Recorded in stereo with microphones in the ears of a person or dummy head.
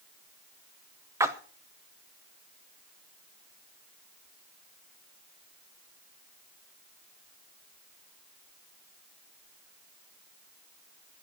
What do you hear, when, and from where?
1.2 s a splash: 15° right (ahead or behind), 1.0 m